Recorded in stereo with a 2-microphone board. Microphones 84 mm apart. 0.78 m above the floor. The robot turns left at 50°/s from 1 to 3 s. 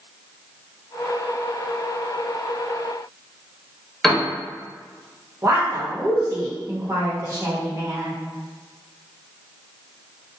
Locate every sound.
4.0 s a piano: 5° left (ahead or behind), 0.6 m
5.4 s a woman speaking: 35° right (ahead or behind), 0.9 m